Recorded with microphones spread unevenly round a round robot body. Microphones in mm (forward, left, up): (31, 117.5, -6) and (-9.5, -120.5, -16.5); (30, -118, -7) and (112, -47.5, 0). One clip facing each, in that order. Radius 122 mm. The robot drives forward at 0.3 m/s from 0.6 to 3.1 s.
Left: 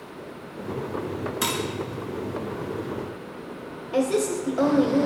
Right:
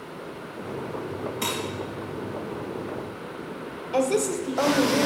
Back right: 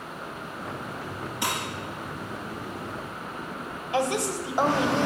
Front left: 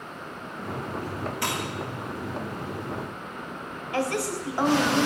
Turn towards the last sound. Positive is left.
turn(degrees=-175)